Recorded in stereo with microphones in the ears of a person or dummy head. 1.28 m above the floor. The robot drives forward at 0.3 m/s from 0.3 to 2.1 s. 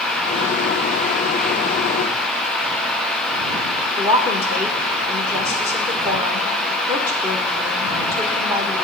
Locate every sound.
4.0 s a woman speaking: 15° right (ahead or behind), 1.6 m